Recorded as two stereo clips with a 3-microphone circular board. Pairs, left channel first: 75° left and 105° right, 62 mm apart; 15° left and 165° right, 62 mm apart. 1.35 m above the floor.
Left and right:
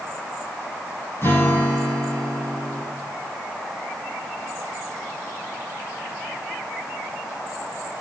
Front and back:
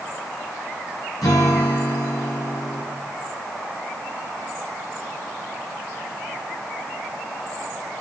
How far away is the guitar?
About 8 m.